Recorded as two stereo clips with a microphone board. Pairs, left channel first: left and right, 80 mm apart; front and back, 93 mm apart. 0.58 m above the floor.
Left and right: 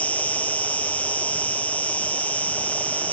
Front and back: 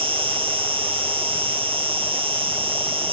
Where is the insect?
160° left, 0.8 m.